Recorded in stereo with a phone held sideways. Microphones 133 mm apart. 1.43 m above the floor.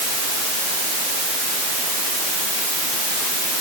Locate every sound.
Only background noise.